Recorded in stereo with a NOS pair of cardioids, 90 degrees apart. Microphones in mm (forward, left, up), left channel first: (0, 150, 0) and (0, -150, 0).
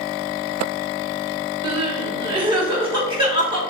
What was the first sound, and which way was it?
Crying, 15° right.